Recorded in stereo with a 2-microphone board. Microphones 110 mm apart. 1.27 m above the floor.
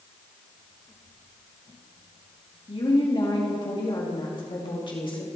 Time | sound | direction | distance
2.7 | a woman speaking | 45° left (ahead or behind) | 2 m